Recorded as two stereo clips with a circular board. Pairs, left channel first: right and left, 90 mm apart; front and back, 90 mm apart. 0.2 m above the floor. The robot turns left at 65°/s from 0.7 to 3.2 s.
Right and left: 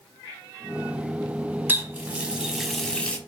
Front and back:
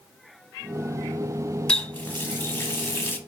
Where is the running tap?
65° left, 0.7 m; by 3.2 s 30° right, 0.7 m.